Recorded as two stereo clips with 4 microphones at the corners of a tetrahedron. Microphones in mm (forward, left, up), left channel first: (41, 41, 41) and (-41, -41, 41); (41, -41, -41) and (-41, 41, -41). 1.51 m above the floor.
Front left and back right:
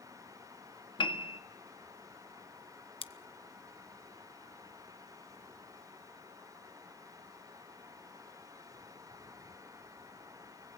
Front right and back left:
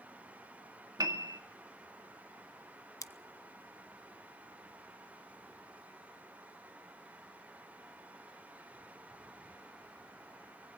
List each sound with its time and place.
1.0 s a piano: 80° left, 1.8 m
3.0 s scissors: 10° left, 1.1 m